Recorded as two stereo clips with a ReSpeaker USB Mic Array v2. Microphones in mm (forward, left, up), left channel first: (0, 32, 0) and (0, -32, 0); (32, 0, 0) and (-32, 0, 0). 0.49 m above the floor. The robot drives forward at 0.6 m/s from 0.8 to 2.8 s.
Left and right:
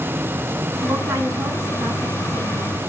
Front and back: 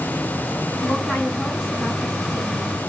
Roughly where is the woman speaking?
Right.